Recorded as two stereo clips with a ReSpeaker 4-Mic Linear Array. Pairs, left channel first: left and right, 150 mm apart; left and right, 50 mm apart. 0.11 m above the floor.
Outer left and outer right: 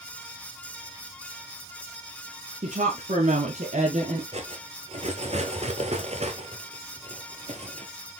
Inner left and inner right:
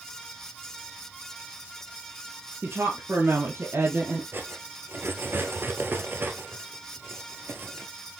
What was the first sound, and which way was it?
A woman speaking, 55° right (ahead or behind).